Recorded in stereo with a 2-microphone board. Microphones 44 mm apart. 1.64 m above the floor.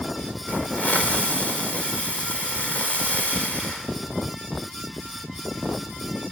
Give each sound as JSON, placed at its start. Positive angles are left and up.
{"t": 0.5, "sound": "a hiss", "side_deg": 30, "distance_m": 3.5}